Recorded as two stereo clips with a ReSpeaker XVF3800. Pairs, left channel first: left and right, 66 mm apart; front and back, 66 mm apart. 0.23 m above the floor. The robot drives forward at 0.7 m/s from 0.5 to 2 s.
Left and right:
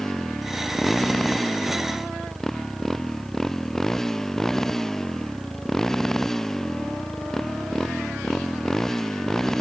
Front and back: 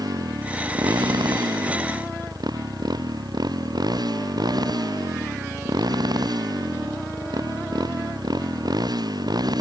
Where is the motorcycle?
175° left.